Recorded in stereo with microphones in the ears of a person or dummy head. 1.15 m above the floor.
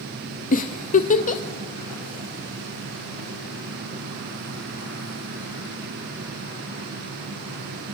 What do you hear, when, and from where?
0.5 s a giggle: 45° left (ahead or behind), 1.3 m